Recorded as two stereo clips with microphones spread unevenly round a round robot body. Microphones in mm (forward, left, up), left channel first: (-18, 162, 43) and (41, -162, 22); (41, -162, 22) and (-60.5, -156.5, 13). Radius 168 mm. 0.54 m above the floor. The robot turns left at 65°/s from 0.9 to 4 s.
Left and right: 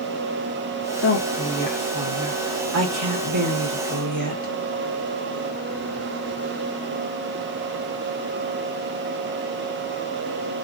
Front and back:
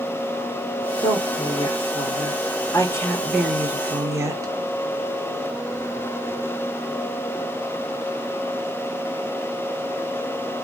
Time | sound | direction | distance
1.0 | a woman speaking | 60° left | 1.5 m